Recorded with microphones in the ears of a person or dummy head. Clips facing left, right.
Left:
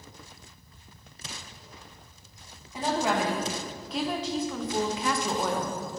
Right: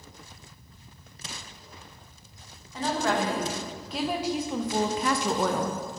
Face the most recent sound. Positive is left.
turn(degrees=-60)  # may be behind; listen again after turning